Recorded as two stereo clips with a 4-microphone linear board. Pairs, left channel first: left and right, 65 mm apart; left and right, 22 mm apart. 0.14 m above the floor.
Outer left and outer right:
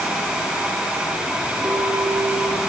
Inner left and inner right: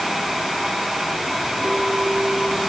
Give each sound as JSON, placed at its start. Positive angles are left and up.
{"t": 1.6, "sound": "a clink", "side_deg": -35, "distance_m": 8.5}